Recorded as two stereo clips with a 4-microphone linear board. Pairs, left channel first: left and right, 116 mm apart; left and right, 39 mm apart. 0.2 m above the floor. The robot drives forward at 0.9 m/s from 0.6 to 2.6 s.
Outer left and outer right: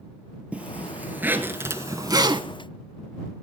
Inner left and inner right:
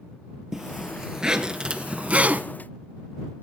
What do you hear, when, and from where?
0.5 s a zipper: 10° right (ahead or behind), 1.8 m; by 2.4 s 45° right (ahead or behind), 0.5 m